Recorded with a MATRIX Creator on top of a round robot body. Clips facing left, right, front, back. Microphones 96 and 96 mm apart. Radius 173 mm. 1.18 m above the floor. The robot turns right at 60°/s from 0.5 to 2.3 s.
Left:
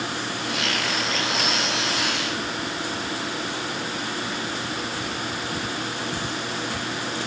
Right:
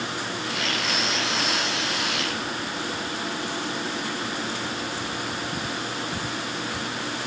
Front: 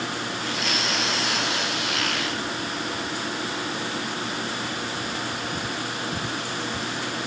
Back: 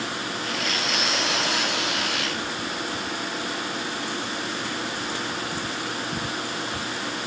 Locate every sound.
Only background noise.